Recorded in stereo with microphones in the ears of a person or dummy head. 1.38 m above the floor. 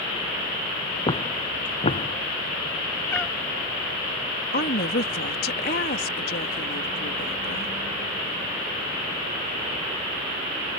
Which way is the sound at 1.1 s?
25° left (ahead or behind).